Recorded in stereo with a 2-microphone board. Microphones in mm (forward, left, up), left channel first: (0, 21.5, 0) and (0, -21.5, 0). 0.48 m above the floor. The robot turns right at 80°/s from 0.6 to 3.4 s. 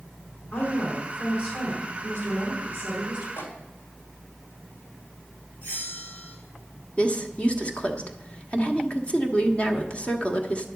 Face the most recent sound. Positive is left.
turn(degrees=25)  # may be behind; listen again after turning